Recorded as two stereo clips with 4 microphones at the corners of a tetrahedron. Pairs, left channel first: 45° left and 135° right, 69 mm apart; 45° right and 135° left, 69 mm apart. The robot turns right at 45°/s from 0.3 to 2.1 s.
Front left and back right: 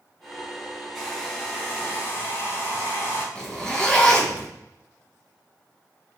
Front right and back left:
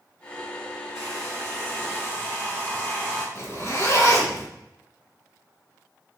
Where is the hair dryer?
50° right, 2.0 m; by 3.2 s 5° left, 2.0 m.